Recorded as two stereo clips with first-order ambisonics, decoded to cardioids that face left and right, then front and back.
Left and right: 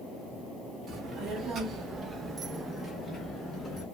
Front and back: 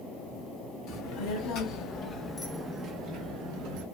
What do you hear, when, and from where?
0.9 s a child speaking: 30° right, 1.1 m; by 3.9 s 170° left, 0.8 m